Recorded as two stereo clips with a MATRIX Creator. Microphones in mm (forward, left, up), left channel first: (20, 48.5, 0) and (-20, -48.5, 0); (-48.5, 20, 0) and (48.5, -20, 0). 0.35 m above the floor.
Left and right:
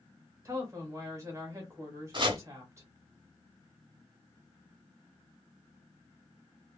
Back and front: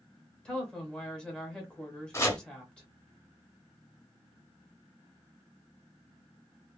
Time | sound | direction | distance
0.5 | a woman speaking | 130° right | 1.1 m
2.1 | chopping | 145° right | 0.7 m